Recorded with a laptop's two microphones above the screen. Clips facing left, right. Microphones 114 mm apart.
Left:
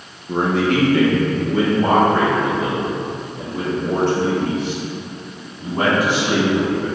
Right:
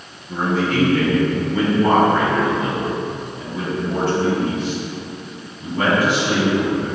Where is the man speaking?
65° left (ahead or behind), 0.9 m; by 6.8 s 90° left, 4.5 m.